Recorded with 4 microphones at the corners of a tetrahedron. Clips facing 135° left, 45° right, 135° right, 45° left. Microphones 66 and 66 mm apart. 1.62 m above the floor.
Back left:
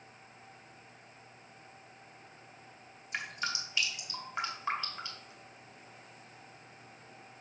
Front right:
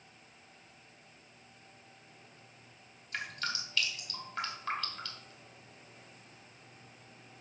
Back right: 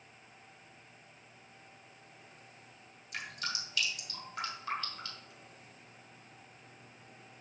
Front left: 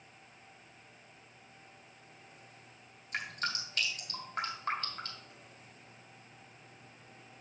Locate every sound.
3.1 s dripping: 70° left, 1.9 m